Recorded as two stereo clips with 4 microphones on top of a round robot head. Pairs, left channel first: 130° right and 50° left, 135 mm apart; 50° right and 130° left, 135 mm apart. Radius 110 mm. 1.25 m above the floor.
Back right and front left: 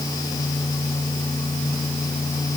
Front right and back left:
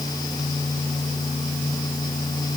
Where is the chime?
I don't hear a chime.